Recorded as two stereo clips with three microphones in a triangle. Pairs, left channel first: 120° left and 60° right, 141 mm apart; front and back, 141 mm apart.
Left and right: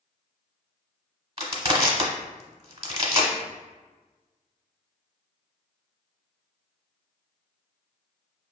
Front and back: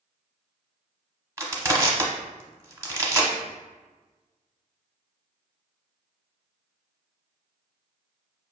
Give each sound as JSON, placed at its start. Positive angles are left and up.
{"t": 1.4, "sound": "crushing", "azimuth_deg": -110, "distance_m": 0.9}